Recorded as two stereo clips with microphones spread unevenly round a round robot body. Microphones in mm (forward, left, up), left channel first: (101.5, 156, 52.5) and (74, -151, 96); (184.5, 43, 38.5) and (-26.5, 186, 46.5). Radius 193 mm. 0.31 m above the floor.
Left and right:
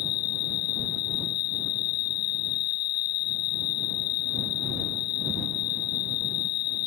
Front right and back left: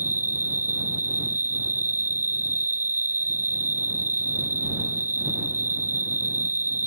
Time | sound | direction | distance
0.0 | an insect | 85° left | ?